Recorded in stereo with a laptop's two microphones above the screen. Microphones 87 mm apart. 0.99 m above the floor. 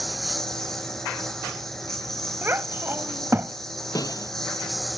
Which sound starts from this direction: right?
A child speaking, at 2.4 s.